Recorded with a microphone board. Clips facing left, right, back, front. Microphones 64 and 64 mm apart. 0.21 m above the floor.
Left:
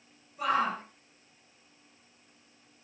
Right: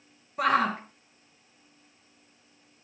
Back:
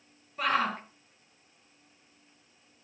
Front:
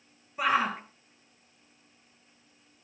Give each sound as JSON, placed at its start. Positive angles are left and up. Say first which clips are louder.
{"t": 0.4, "sound": "a shout", "louder": "right 4 dB, front 2 dB", "azimuth_deg": -75, "distance_m": 3.5}